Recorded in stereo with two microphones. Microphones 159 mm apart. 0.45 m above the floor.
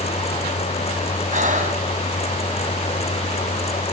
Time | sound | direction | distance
1.3 | breathing | 50° right (ahead or behind) | 3 m